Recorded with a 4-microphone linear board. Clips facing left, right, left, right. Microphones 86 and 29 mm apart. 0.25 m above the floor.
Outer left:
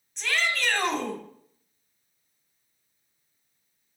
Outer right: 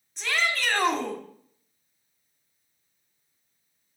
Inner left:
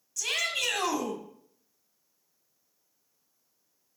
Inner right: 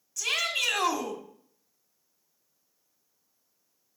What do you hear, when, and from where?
0.2 s a shout: centre (ahead or behind), 1.7 m